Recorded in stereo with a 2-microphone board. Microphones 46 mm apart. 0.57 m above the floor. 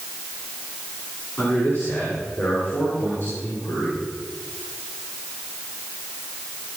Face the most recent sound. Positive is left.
turn(degrees=45)  # may be behind; listen again after turning